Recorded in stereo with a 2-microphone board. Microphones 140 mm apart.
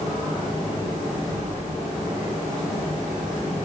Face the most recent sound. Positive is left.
turn(degrees=-55)  # may be behind; listen again after turning